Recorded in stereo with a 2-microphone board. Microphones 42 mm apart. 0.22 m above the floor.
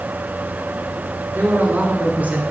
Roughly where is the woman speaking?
Right.